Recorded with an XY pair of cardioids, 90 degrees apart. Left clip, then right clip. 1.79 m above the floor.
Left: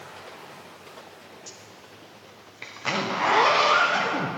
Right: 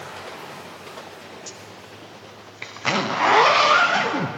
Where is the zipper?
45° right, 1.1 m.